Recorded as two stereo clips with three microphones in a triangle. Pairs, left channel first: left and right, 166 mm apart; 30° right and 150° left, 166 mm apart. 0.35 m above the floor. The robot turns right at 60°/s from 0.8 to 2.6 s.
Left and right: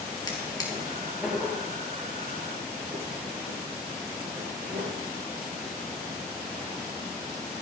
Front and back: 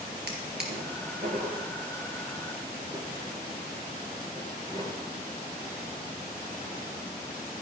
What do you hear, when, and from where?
0.3 s a drawer: 155° left, 2.5 m; by 4.9 s 95° right, 2.5 m